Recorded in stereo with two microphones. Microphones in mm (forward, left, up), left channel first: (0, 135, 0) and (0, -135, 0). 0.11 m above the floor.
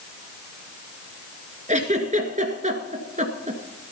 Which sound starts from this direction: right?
A giggle, at 1.7 s.